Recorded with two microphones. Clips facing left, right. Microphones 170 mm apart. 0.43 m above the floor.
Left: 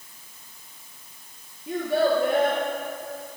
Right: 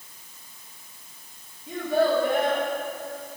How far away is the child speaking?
About 5 m.